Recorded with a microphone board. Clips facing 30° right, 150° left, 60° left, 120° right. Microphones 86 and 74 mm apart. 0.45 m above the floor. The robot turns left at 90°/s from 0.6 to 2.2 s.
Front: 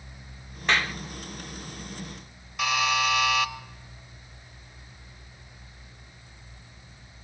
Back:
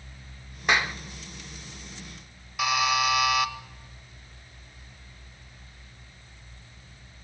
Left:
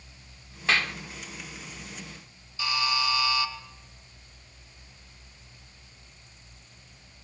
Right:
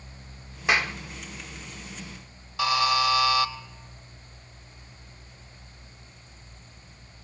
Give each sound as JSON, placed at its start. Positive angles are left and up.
{"t": 0.7, "sound": "a clap", "azimuth_deg": -160, "distance_m": 0.8}
{"t": 2.6, "sound": "a buzzer", "azimuth_deg": -125, "distance_m": 1.2}